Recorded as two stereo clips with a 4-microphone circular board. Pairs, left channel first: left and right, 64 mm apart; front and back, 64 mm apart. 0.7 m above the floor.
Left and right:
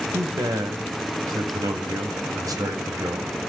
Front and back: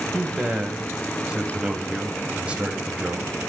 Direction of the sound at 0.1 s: 110° right.